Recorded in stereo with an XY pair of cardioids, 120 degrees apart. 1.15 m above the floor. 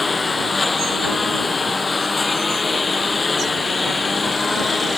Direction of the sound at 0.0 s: 20° left.